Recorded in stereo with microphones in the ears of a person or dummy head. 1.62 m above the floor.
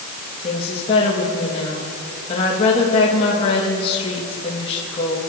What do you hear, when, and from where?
0.4 s a woman speaking: 35° left (ahead or behind), 3 m